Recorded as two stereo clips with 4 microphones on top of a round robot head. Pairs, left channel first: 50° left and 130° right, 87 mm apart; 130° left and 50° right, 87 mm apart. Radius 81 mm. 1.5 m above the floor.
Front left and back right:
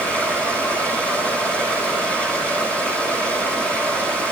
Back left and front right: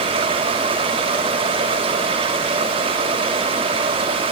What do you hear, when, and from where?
0.0 s running water: 25° right, 6 m